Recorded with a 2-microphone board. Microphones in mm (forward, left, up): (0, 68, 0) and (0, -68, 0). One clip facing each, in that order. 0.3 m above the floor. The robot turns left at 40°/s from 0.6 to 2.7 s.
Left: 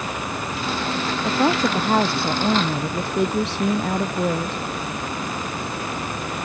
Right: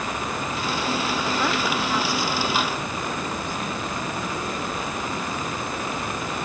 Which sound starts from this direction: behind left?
A woman speaking, at 1.2 s.